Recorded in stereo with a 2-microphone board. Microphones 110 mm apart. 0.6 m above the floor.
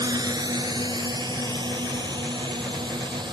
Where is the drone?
35° right (ahead or behind); by 3.3 s 45° right (ahead or behind).